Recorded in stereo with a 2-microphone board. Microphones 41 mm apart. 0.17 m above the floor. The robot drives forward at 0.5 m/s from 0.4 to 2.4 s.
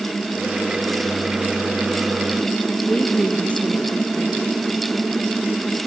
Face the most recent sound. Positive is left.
turn(degrees=35)  # may be behind; listen again after turning